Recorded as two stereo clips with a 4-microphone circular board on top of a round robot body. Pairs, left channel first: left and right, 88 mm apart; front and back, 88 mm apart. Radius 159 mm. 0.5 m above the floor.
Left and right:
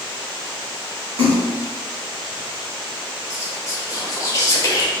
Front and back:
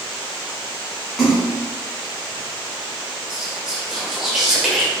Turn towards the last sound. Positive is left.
turn(degrees=100)